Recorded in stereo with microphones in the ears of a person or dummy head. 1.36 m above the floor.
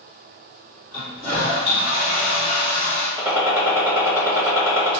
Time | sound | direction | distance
0.9 | a toilet flushing | 40° right (ahead or behind) | 1.8 m
3.2 | a gunshot | 15° right (ahead or behind) | 0.6 m